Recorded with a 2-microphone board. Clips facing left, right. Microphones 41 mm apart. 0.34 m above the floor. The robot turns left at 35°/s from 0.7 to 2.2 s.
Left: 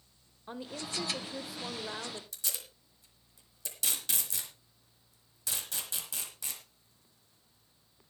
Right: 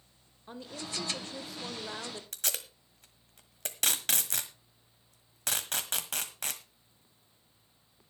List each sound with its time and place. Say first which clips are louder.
0.5 s a woman speaking: left 1 dB; 15° left (ahead or behind), 0.9 m; by 2.2 s centre (ahead or behind), 0.9 m
2.3 s tape being pulled: right 5 dB; 60° right (ahead or behind), 1.5 m